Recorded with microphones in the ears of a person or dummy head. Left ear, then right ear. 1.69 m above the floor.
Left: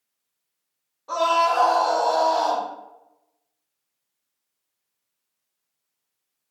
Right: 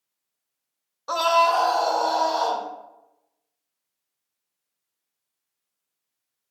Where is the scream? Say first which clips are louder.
Right 1 dB; 50° right (ahead or behind), 0.6 m; by 2.6 s 60° right (ahead or behind), 2 m.